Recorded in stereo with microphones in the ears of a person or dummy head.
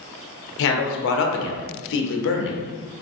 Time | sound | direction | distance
0.6 | a man speaking | 65° left (ahead or behind) | 0.6 m